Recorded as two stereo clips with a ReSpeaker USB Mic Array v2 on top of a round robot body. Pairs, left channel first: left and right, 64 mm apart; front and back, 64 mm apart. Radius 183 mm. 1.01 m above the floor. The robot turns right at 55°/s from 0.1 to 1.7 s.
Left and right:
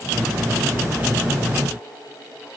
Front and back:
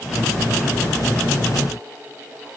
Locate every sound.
Only background noise.